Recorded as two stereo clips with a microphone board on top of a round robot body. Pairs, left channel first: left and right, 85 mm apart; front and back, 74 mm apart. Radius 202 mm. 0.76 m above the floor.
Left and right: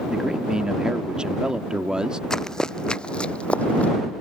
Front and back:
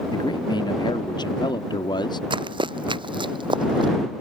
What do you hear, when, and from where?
0.1 s a man speaking: 10° right
2.3 s running footsteps: 175° left; by 3.9 s 165° left